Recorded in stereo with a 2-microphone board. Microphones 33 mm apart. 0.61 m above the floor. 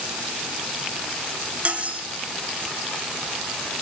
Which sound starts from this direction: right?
Cutlery clinking, at 1.6 s.